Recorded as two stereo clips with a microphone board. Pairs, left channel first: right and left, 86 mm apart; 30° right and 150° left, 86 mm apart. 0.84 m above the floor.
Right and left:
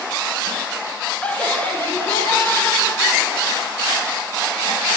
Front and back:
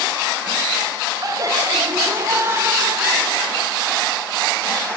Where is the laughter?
165° right, 3 m; by 3.7 s 140° right, 4 m.